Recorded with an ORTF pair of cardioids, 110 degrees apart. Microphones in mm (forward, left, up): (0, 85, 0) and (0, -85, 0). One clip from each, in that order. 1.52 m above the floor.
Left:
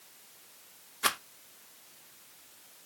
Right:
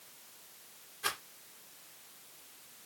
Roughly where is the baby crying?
No baby crying in this recording.